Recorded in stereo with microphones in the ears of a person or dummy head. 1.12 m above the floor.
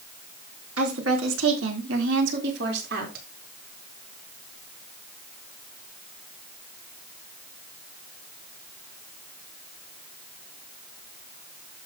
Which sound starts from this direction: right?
A woman speaking, at 0.8 s.